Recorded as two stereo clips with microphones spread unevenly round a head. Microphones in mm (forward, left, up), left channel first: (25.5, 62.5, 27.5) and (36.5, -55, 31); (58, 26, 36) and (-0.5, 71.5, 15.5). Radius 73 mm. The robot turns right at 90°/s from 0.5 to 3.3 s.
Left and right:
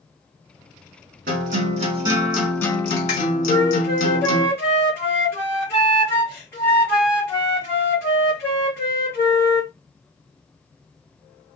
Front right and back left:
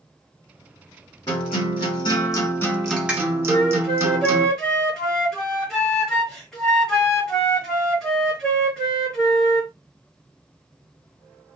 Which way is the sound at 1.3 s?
105° right.